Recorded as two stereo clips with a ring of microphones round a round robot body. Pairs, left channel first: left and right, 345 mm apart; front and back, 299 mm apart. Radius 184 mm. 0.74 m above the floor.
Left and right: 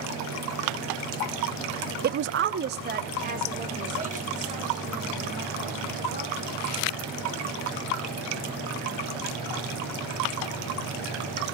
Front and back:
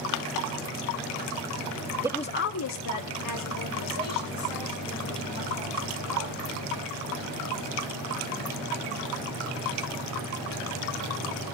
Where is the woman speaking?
120° right, 0.5 m; by 6.5 s 20° right, 7 m.